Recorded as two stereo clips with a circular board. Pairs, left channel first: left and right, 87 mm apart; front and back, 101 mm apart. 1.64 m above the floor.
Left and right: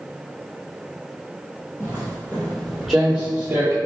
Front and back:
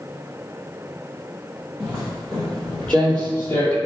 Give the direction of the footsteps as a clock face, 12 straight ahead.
9 o'clock.